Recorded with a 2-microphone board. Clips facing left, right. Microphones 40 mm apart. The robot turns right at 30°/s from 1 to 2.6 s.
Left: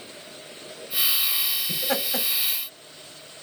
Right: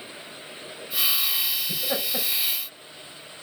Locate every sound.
1.7 s laughter: 85° left, 4 m; by 2.3 s 75° left (ahead or behind), 4 m